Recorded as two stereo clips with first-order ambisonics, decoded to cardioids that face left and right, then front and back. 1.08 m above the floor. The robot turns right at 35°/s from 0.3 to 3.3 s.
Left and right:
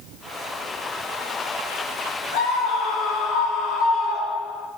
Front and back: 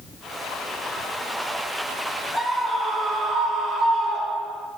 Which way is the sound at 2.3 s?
90° left.